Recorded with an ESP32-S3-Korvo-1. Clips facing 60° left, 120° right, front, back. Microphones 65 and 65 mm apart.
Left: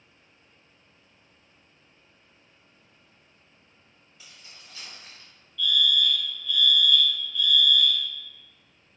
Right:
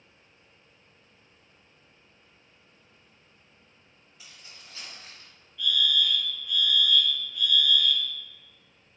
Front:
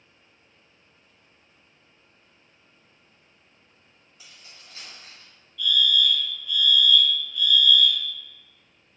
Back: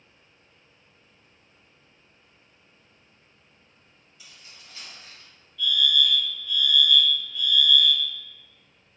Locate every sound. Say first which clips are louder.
4.2 s keys jangling: even, even; 55° right, 2.0 m; by 5.3 s 70° right, 2 m
5.6 s a fire alarm: left 2 dB, front 1 dB; 160° right, 1.8 m